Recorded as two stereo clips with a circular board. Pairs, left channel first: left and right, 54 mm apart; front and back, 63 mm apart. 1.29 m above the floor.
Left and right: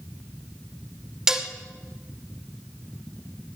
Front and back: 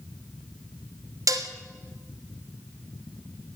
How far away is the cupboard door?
I don't hear a cupboard door.